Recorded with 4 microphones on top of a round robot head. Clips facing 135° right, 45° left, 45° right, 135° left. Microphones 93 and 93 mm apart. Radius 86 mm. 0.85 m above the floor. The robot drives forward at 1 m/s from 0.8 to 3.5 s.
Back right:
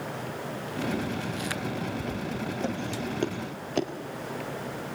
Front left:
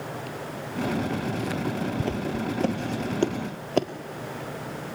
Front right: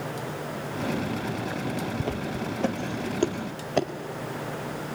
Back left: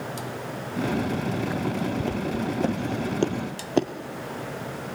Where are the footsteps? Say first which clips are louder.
Front left 4 dB, back left 3 dB; 35° left, 1.0 m; by 3.9 s 60° left, 0.9 m.